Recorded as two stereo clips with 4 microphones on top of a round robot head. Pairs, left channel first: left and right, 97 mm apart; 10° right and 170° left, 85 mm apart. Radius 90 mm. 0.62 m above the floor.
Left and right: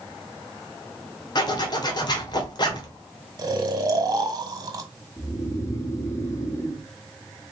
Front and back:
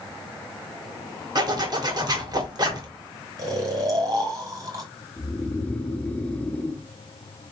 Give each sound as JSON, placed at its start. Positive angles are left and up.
{"t": 1.4, "sound": "a zipper", "azimuth_deg": 135, "distance_m": 2.0}
{"t": 3.4, "sound": "snoring", "azimuth_deg": -140, "distance_m": 2.0}
{"t": 5.2, "sound": "snoring", "azimuth_deg": 55, "distance_m": 1.4}